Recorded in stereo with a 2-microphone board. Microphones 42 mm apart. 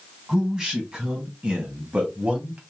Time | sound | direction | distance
0.3 | a man speaking | 10° right (ahead or behind) | 2.5 m